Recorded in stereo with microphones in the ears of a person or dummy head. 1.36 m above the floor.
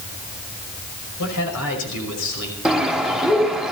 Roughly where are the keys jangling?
No keys jangling in this recording.